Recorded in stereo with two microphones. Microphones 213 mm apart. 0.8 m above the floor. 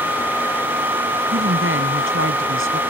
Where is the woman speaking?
75° right (ahead or behind).